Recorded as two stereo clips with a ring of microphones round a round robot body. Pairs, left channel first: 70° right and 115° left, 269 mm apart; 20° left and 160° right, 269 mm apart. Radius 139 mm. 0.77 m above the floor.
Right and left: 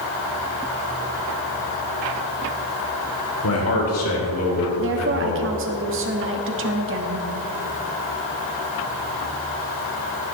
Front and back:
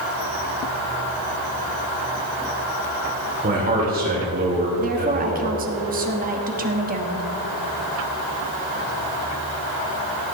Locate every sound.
3.4 s a man speaking: 100° right, 3 m
4.8 s a woman speaking: 150° left, 1.4 m